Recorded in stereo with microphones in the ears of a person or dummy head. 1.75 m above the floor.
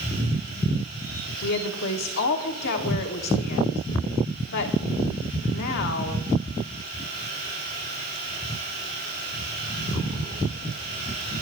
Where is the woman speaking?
60° left (ahead or behind), 1.4 m.